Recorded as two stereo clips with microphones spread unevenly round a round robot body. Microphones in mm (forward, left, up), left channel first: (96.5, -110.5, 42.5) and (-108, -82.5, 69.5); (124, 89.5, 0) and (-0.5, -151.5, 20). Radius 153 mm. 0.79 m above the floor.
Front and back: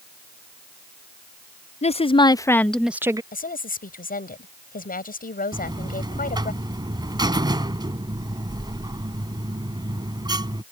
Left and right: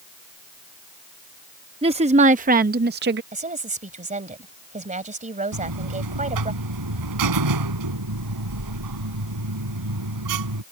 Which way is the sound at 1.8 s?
50° right.